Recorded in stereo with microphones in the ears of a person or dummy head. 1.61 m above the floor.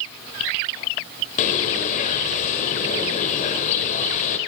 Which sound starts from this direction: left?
A bird, at 1.4 s.